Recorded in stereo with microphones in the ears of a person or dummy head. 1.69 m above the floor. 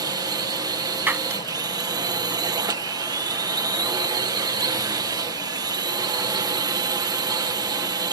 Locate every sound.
0.0 s a drone: 20° right (ahead or behind)
1.1 s breaking glass: 10° right (ahead or behind)